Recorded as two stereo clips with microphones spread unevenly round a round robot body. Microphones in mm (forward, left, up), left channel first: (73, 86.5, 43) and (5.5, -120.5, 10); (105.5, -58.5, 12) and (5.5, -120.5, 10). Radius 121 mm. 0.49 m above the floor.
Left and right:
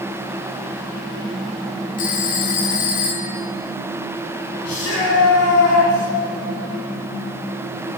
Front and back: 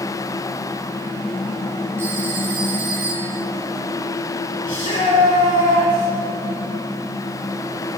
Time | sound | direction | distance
2.0 | a phone ringing | 130° left | 2.5 m
4.7 | a shout | 65° left | 7 m